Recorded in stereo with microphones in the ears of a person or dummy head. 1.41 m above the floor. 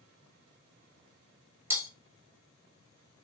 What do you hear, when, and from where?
1.7 s breaking glass: 20° right (ahead or behind), 1.3 m